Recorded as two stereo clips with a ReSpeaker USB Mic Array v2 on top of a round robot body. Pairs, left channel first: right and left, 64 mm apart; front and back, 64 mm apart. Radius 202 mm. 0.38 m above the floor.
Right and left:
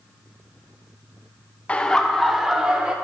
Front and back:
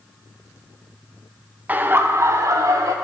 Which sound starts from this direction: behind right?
Laughter, at 1.7 s.